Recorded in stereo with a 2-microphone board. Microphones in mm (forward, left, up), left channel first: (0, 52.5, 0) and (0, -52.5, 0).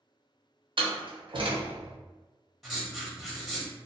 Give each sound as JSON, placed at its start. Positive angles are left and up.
{"t": 0.8, "sound": "a door slam", "side_deg": -55, "distance_m": 0.7}
{"t": 2.6, "sound": "writing", "side_deg": 0, "distance_m": 0.7}